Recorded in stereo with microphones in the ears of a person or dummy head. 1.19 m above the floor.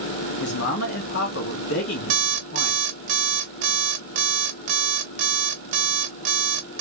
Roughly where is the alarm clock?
Right.